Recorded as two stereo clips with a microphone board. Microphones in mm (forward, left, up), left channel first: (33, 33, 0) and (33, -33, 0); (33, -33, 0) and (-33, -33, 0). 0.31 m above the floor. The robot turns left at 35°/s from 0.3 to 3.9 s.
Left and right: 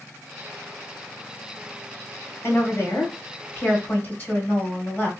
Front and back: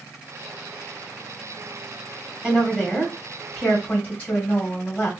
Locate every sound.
2.4 s a woman speaking: 110° left, 1.8 m; by 5.1 s 60° left, 1.8 m